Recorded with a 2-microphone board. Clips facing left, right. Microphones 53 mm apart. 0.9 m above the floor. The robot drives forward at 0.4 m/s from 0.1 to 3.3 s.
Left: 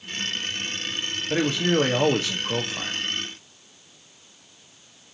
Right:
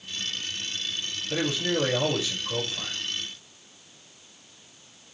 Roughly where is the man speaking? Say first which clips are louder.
Left 5 dB; left.